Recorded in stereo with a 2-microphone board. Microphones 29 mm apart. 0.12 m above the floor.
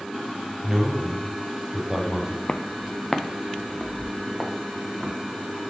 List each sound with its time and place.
0.6 s a man speaking: 25° right (ahead or behind), 2.5 m
2.5 s footsteps: 55° left (ahead or behind), 0.5 m; by 5.1 s 5° right (ahead or behind), 2.5 m